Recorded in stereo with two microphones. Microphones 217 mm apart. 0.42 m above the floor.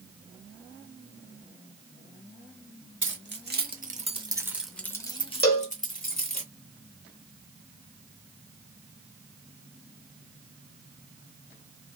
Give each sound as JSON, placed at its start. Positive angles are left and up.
{"t": 3.0, "sound": "keys jangling", "side_deg": -60, "distance_m": 1.0}
{"t": 5.4, "sound": "a cowbell", "side_deg": 45, "distance_m": 1.2}